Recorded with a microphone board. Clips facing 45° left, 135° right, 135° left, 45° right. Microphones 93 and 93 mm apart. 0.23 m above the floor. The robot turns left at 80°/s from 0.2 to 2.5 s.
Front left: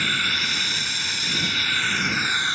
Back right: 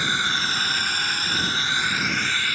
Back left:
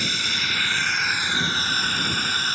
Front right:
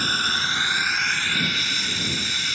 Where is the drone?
70° right; by 2.6 s 105° left.